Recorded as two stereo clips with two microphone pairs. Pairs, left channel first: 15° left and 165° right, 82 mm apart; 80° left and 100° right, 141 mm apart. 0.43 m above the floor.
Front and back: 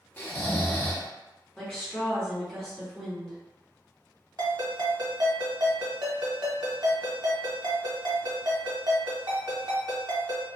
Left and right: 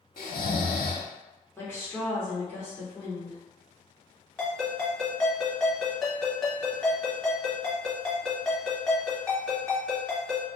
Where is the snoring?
80° left, 0.6 m.